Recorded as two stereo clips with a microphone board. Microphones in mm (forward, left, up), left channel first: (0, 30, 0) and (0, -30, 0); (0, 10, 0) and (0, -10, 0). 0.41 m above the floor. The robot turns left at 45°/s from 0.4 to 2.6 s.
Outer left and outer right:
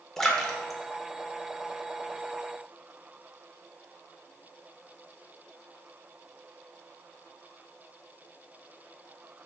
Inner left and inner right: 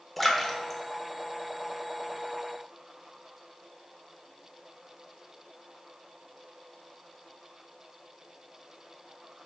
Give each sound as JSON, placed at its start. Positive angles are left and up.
{"t": 0.2, "sound": "a splash", "side_deg": 5, "distance_m": 0.6}